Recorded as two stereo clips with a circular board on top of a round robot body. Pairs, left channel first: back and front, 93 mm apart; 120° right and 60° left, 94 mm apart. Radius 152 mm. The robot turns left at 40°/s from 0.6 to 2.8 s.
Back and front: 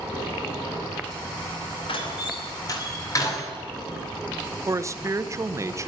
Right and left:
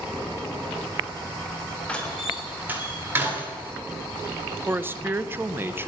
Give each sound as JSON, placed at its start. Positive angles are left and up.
{"t": 1.9, "sound": "a door slam", "azimuth_deg": 165, "distance_m": 2.5}
{"t": 4.7, "sound": "a man speaking", "azimuth_deg": 15, "distance_m": 0.8}